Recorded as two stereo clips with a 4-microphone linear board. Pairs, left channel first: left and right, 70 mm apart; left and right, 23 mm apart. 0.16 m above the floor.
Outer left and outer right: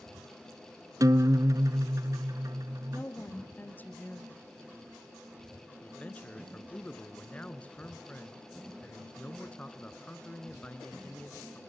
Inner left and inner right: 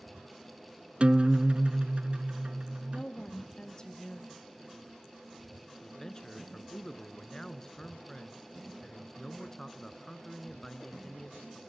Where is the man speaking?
20° left (ahead or behind), 2 m.